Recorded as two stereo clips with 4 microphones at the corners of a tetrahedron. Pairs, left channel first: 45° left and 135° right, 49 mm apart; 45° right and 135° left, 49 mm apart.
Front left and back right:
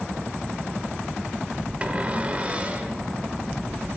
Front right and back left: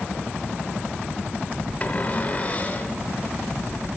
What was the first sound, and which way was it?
A cupboard door, 85° right.